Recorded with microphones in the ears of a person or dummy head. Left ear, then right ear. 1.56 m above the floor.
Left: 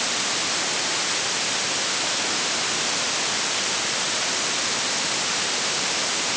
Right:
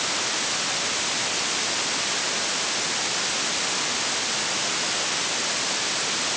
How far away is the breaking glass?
I don't hear breaking glass.